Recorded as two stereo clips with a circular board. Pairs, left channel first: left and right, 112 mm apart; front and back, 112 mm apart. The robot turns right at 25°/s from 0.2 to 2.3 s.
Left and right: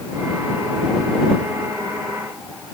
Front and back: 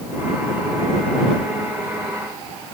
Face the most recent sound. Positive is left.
No sound to turn to.